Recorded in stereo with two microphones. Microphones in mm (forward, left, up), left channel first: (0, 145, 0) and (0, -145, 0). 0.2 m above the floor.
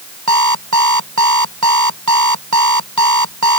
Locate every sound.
0.3 s an alarm clock: 80° right